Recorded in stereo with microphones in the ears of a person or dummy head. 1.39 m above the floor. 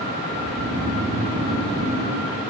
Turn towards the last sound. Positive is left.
turn(degrees=-75)  # may be behind; listen again after turning